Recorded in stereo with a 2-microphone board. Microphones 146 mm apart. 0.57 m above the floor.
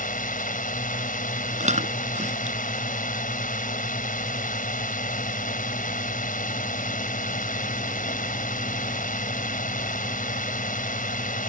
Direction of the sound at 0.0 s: 70° left (ahead or behind).